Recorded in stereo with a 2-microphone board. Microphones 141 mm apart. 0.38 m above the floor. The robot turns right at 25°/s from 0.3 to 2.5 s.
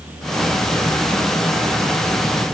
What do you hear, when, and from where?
Only background noise.